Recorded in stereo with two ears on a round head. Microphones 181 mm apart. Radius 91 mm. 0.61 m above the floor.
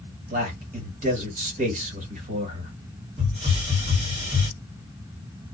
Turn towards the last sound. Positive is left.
turn(degrees=-30)  # may be behind; listen again after turning